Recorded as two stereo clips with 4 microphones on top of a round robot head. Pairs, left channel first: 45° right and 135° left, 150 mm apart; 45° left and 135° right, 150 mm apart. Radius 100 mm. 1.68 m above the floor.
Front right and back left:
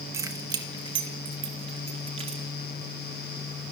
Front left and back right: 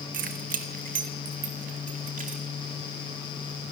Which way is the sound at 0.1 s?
155° right.